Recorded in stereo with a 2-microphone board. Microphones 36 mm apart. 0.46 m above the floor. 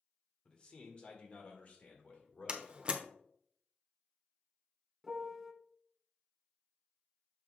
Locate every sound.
0.5 s a man speaking: 25° left (ahead or behind), 1.7 m; by 2.8 s 45° left (ahead or behind), 2 m
2.5 s a door slam: 30° right (ahead or behind), 0.7 m
5.0 s a piano: 5° right (ahead or behind), 0.7 m